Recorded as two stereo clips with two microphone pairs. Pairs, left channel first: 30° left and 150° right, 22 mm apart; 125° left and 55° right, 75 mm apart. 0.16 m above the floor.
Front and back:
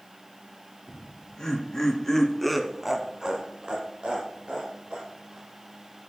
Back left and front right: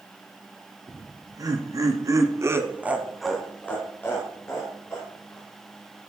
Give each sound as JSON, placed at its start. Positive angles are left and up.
{"t": 0.9, "sound": "laughter", "azimuth_deg": -25, "distance_m": 3.5}